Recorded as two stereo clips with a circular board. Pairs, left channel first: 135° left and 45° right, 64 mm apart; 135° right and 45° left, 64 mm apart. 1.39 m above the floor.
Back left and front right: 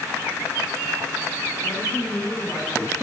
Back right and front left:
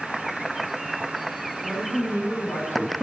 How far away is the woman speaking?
About 8.5 m.